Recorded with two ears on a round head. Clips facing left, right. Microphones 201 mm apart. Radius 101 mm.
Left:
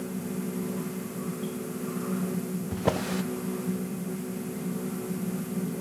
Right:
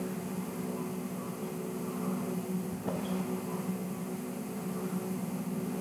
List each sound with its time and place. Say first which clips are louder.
2.7 s a drawer: left 6 dB; 85° left, 0.7 m